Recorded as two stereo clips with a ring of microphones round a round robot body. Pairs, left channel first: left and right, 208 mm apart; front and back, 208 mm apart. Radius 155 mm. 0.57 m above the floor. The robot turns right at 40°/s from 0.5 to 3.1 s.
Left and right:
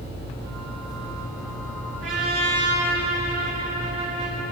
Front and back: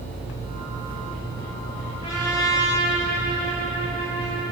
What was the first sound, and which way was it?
A trumpet, 75° right.